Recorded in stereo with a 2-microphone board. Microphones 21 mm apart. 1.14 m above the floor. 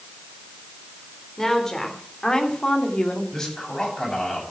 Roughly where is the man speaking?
Left.